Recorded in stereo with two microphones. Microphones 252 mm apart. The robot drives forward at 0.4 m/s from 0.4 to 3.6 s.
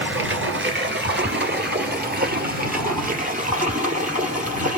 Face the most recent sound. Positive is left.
turn(degrees=-30)  # may be behind; listen again after turning